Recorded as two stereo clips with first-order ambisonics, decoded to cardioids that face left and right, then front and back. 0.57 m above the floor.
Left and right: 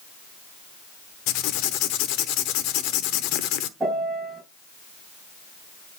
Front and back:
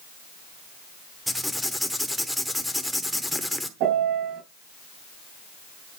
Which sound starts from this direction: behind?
A piano, at 3.8 s.